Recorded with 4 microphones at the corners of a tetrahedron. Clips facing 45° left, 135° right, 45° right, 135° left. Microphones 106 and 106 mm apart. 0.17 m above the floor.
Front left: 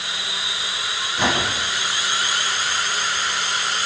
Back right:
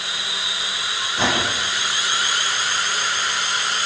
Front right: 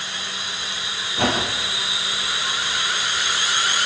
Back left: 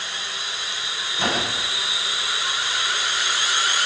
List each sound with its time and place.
1.2 s a whoosh: 70° right, 9 m